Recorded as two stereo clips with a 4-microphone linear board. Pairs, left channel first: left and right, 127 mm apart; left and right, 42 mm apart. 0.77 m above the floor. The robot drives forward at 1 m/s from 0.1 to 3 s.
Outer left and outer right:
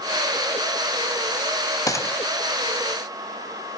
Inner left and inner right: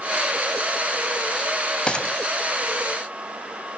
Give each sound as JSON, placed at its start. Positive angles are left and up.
{"t": 1.9, "sound": "a gunshot", "side_deg": 30, "distance_m": 1.0}